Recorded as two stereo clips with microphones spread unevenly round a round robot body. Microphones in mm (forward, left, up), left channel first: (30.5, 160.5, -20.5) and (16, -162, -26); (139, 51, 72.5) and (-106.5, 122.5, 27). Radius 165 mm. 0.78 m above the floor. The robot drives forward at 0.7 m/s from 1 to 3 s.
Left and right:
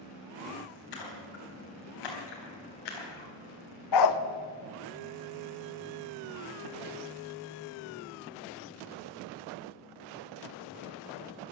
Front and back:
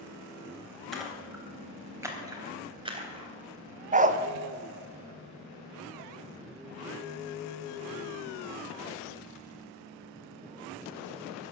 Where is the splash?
75° left, 4 m; by 3.3 s 95° left, 3.5 m.